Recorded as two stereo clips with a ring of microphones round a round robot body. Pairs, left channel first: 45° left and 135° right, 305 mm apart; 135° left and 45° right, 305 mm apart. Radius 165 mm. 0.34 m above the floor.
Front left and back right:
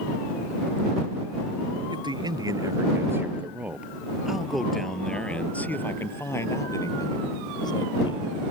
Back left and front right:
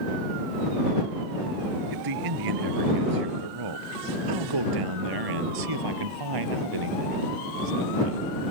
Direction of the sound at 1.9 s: 60° right.